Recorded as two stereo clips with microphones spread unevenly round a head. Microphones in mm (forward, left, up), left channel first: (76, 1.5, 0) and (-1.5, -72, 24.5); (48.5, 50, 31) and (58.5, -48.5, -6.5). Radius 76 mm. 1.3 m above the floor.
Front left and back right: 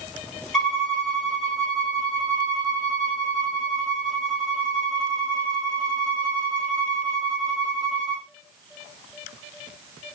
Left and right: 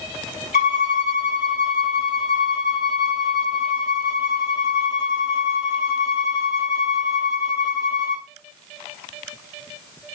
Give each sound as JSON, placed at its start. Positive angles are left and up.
{"t": 0.5, "sound": "a violin", "azimuth_deg": 135, "distance_m": 0.8}